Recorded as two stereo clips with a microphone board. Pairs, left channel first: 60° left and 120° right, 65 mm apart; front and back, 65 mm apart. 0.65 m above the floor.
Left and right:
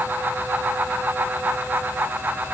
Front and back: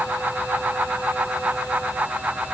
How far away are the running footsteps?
No running footsteps in this recording.